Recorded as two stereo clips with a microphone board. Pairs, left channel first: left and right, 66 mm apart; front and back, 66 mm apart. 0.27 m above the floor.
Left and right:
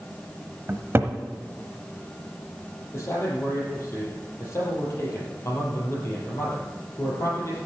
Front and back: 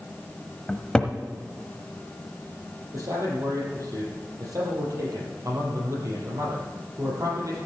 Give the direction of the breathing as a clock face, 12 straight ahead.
No breathing in this recording.